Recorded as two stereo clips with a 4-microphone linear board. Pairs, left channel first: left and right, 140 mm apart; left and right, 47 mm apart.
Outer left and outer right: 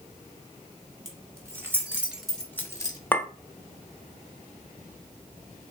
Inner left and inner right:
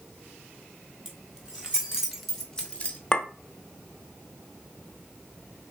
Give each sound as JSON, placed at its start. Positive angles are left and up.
{"t": 1.1, "sound": "keys jangling", "side_deg": -20, "distance_m": 1.7}
{"t": 3.1, "sound": "a clink", "side_deg": 10, "distance_m": 0.5}